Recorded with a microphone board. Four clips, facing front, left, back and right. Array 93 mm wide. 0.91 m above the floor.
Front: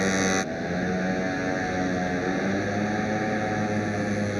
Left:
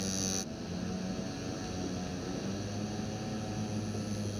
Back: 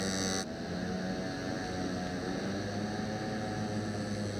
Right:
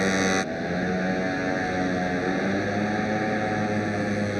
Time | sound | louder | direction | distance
0.0 | a motorcycle | right 14 dB, front 10 dB | 55° right | ?